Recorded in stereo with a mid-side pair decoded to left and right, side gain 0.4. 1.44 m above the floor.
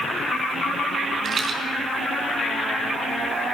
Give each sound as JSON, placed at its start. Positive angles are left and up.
{"t": 1.2, "sound": "a rattle", "azimuth_deg": -45, "distance_m": 4.5}